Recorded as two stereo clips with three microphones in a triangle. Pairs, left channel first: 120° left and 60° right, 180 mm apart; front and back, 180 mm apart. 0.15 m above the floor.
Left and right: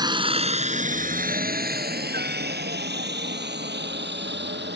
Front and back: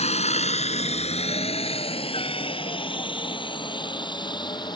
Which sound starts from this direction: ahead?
A helicopter, at 0.0 s.